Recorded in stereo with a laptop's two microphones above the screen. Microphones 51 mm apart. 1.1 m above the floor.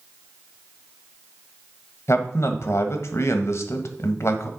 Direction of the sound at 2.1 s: 60° left (ahead or behind).